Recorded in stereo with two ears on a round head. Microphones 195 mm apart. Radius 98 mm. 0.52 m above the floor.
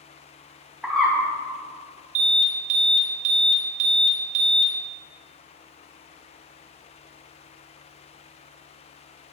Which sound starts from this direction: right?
An alarm, at 2.1 s.